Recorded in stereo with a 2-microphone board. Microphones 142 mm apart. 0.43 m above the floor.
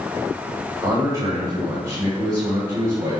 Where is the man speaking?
25° right (ahead or behind), 1.7 m.